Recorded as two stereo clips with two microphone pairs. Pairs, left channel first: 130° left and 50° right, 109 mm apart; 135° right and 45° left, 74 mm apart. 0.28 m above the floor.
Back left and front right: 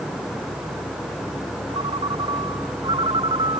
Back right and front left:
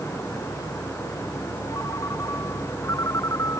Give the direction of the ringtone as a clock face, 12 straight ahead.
3 o'clock.